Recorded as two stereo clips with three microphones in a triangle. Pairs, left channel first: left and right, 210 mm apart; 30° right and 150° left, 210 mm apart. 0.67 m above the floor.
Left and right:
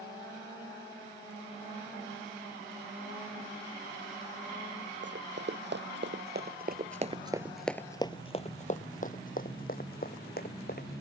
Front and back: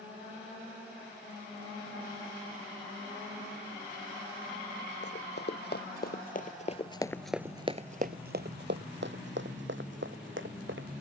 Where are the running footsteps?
60° right; by 11.0 s 130° left.